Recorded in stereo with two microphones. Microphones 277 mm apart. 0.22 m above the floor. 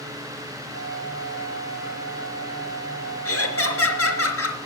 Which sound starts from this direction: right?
A flute, at 0.7 s.